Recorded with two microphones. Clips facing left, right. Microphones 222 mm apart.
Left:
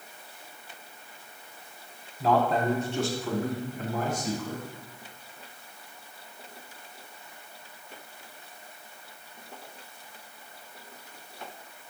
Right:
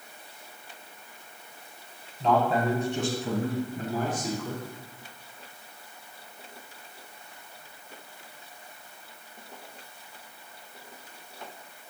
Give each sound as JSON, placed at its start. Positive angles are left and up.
{"t": 2.2, "sound": "a man speaking", "side_deg": 10, "distance_m": 1.1}